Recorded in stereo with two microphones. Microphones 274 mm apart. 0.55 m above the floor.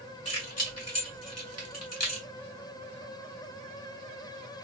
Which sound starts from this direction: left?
Keys jangling, at 0.2 s.